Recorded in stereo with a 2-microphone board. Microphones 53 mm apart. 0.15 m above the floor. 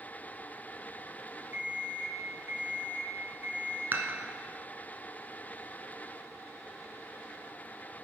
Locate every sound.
1.5 s an alarm clock: 45° right (ahead or behind), 2.5 m
3.9 s dishes clattering: 40° right (ahead or behind), 0.9 m